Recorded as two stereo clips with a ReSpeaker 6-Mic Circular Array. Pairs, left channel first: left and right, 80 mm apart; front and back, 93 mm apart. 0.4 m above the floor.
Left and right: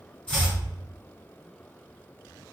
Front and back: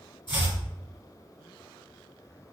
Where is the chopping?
15° left, 1.7 m.